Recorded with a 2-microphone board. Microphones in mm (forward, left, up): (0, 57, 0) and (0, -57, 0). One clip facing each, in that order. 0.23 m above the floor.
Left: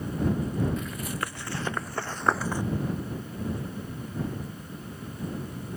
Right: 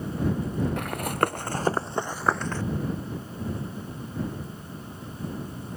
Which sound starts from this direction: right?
Running footsteps, at 0.8 s.